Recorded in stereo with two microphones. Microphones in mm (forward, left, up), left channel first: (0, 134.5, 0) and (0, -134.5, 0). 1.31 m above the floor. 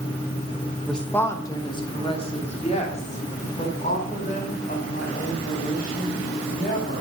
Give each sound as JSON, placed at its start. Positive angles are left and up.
{"t": 0.9, "sound": "a woman speaking", "side_deg": 0, "distance_m": 1.0}